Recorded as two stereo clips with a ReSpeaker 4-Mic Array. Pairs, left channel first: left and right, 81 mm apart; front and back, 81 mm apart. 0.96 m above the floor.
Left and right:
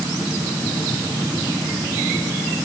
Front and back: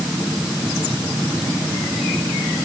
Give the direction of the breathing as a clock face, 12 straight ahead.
No breathing in this recording.